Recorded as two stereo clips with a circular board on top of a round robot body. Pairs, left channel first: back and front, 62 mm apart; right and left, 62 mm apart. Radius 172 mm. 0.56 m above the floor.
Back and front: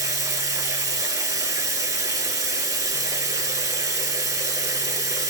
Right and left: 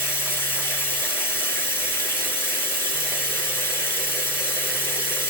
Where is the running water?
35° right, 3 m.